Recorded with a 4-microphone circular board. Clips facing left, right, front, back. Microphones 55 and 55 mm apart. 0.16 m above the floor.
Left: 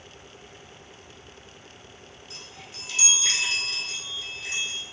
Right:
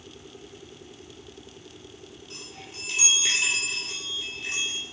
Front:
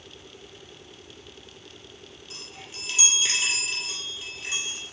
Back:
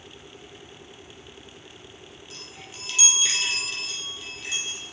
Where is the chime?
70° right, 2 m.